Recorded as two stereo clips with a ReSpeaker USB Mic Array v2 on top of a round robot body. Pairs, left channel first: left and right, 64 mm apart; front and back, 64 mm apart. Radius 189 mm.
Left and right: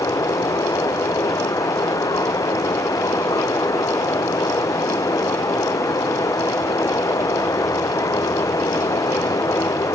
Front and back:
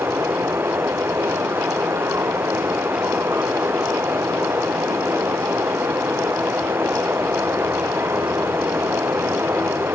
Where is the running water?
125° left.